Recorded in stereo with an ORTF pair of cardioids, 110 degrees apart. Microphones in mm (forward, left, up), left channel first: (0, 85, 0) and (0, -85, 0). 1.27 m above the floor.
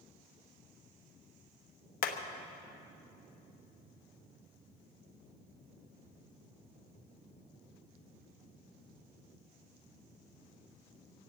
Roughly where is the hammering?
Ahead left.